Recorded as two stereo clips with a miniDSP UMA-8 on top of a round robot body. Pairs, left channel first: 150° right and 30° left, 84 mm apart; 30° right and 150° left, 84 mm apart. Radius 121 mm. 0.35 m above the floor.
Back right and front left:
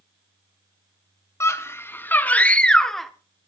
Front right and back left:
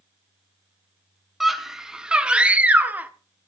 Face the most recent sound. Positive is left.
turn(degrees=125)